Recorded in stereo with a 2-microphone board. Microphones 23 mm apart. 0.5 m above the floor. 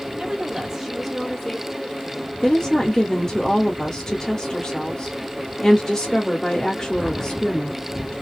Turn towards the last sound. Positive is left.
turn(degrees=25)  # may be behind; listen again after turning